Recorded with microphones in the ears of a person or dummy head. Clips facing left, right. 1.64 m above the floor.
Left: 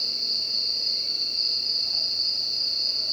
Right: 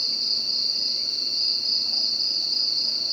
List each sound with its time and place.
0.0 s an insect: 70° right (ahead or behind), 3 m